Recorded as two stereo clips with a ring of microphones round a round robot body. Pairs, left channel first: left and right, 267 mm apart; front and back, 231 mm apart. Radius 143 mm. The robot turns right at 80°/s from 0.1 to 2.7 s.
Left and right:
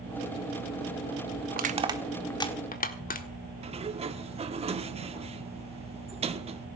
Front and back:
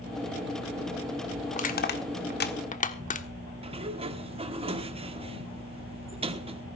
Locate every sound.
1.5 s crushing: 50° right, 1.5 m; by 3.3 s 45° left, 1.5 m
3.6 s a sliding door: 140° right, 1.3 m